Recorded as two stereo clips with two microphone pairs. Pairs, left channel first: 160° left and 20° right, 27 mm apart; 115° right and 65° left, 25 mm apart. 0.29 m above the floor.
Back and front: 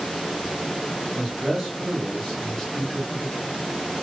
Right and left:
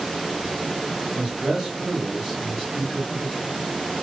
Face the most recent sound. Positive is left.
turn(degrees=175)